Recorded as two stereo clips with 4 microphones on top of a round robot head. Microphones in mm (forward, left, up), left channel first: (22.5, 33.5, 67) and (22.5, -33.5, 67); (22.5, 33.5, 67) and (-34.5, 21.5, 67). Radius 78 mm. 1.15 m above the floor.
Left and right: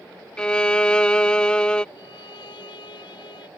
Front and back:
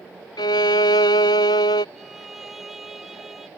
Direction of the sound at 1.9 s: 110° left.